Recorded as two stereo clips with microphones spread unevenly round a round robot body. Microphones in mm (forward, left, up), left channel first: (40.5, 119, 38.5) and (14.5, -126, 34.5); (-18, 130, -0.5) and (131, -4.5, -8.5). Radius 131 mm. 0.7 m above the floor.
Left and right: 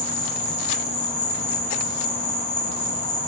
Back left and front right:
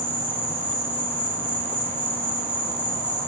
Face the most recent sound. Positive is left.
turn(degrees=60)